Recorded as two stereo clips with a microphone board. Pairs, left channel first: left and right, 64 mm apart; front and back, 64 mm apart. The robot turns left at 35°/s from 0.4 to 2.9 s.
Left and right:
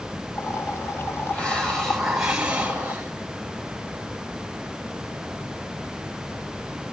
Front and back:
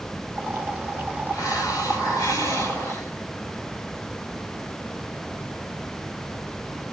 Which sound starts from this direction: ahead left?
A hiss, at 1.3 s.